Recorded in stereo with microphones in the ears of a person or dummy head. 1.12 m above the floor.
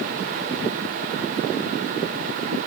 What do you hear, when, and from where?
Only background noise.